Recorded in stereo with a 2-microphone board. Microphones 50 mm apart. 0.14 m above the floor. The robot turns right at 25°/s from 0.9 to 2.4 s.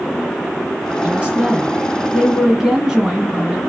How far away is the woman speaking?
About 1.7 m.